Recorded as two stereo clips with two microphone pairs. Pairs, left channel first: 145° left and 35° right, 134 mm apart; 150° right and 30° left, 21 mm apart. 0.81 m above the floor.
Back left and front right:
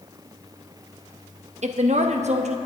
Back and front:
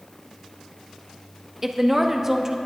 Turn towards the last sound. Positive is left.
turn(degrees=-35)